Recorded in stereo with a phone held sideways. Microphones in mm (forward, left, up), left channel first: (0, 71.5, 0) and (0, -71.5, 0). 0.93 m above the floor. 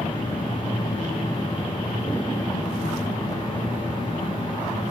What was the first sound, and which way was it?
A machine running, 30° left (ahead or behind).